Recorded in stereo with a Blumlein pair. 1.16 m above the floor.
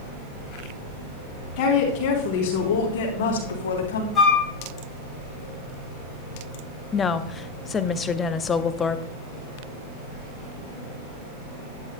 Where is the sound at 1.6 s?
45° left, 3.5 m; by 4.0 s 65° left, 3 m.